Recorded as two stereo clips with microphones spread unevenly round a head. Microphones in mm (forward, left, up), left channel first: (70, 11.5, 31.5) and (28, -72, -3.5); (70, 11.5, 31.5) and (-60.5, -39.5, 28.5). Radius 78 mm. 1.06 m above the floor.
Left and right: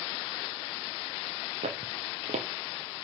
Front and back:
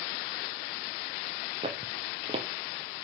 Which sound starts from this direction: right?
Footsteps, at 1.6 s.